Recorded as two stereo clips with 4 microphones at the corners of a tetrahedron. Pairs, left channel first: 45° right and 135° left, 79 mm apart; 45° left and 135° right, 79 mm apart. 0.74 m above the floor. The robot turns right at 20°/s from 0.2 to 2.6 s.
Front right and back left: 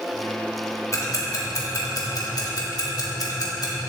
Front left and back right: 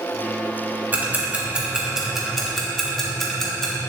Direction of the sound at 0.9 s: 75° right.